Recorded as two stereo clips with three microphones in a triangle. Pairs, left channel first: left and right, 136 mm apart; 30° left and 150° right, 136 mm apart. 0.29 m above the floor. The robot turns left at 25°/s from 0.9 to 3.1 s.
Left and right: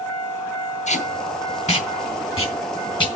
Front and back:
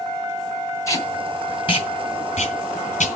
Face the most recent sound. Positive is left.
turn(degrees=40)